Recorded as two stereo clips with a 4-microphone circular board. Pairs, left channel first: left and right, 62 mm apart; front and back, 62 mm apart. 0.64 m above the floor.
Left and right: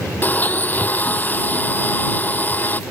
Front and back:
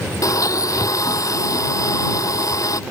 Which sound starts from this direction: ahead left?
A blender, at 0.2 s.